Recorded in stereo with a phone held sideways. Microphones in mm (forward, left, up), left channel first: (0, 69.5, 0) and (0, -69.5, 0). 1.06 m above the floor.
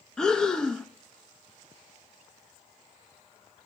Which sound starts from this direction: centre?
Breathing, at 0.2 s.